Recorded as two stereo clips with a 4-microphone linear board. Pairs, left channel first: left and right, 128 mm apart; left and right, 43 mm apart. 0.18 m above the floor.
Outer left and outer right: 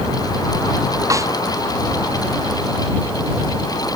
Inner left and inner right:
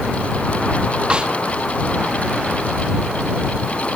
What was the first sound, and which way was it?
A snare drum, 25° right (ahead or behind).